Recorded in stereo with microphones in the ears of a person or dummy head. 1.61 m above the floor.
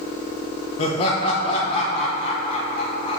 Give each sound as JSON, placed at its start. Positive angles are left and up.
{"t": 0.8, "sound": "laughter", "side_deg": 35, "distance_m": 1.1}